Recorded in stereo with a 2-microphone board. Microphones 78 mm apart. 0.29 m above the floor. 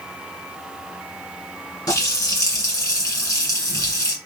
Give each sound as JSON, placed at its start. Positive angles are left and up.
{"t": 1.9, "sound": "a running tap", "side_deg": 45, "distance_m": 2.0}